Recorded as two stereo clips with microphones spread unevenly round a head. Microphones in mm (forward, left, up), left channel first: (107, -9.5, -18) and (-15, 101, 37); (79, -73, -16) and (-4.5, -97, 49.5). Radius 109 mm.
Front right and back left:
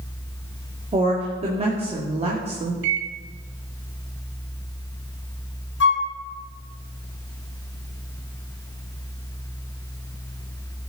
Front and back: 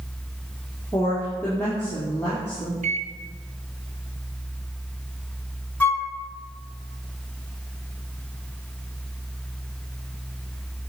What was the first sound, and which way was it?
A woman speaking, 85° left.